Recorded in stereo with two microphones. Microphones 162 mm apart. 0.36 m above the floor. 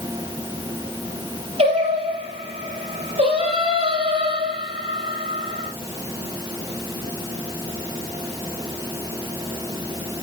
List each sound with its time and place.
1.6 s singing: 40° right (ahead or behind), 6 m